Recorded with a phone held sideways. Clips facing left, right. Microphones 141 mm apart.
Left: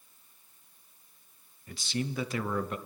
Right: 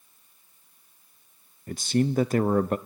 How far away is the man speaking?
About 0.6 m.